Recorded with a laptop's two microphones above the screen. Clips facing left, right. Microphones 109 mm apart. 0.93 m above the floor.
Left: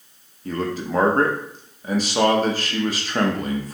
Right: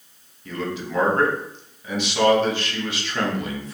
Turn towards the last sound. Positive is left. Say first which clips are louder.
# left 3 dB
turn(degrees=40)  # may be behind; listen again after turning